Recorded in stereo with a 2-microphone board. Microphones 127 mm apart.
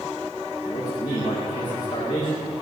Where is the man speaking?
35° left (ahead or behind), 9 m.